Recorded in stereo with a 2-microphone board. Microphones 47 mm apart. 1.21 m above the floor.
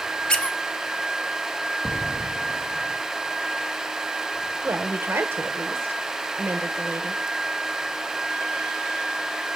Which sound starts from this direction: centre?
A squeak, at 0.3 s.